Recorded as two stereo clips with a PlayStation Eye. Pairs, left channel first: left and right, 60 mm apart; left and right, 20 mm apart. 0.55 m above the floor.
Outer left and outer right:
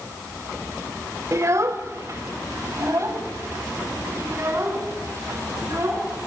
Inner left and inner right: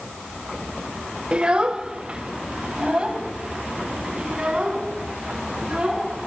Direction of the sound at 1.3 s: 55° right (ahead or behind).